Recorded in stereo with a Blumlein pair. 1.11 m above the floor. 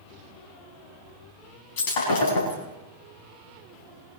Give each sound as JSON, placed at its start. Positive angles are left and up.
{"t": 1.8, "sound": "breaking glass", "azimuth_deg": 50, "distance_m": 4.5}